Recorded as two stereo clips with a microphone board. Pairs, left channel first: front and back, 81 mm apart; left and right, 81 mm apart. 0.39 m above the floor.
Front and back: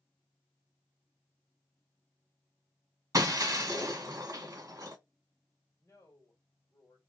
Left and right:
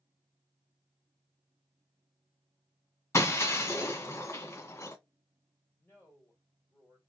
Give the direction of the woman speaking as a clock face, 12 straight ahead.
11 o'clock.